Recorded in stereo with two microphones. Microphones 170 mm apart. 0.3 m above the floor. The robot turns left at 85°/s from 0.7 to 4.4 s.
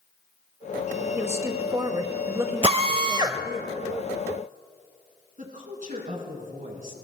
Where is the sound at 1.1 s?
10° right (ahead or behind), 1.0 m; by 3.6 s 20° left (ahead or behind), 1.0 m.